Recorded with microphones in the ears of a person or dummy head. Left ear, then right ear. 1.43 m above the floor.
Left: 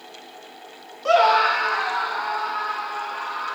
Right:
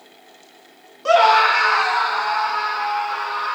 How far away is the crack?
No crack in this recording.